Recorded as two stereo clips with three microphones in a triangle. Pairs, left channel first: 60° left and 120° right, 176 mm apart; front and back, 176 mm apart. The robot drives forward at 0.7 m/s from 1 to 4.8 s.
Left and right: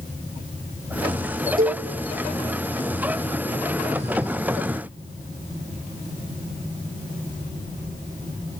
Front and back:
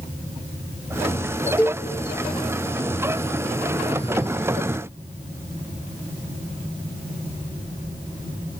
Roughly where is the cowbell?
Right.